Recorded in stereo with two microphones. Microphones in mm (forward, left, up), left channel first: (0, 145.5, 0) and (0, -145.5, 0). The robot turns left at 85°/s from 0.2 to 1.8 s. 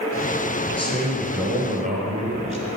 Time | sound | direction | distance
0.7 | a man speaking | 45° left | 1.4 m